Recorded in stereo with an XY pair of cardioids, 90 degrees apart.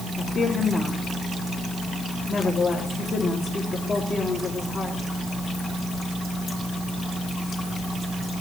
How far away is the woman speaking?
About 4 m.